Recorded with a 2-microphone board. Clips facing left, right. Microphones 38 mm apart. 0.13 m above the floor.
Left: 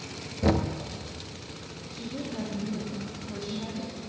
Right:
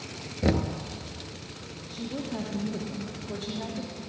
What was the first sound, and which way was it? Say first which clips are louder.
Knocking: left 1 dB; centre (ahead or behind).